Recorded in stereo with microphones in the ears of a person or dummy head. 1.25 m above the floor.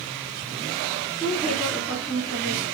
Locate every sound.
1.2 s a woman speaking: 10° left (ahead or behind), 3 m; by 2.6 s centre (ahead or behind), 2 m